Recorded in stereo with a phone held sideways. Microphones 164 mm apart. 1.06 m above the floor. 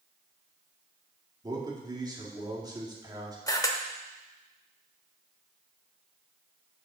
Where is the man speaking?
25° right (ahead or behind), 1.8 m.